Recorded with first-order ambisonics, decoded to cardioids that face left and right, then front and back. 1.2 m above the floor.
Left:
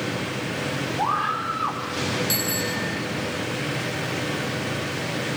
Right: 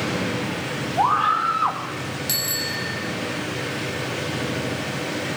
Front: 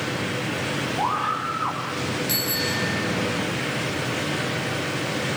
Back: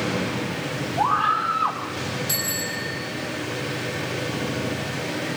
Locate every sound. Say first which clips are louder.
1.0 s a scream: right 6 dB, back 6 dB; 105° right, 1.6 m
2.3 s a bicycle bell: even, front 3 dB; 90° right, 10 m